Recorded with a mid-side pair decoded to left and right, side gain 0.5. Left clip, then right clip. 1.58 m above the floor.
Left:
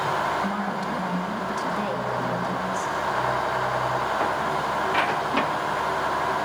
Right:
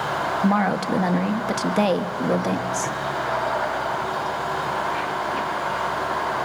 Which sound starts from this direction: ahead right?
A woman speaking, at 0.4 s.